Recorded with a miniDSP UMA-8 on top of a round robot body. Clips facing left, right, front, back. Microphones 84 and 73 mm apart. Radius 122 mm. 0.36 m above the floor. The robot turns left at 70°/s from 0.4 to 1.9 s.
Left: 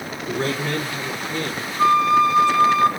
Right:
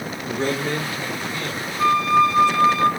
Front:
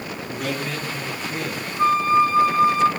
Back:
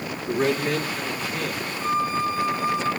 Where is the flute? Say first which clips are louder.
Left 1 dB, front 8 dB; 25° left, 2 m; by 2.9 s 20° left, 2 m.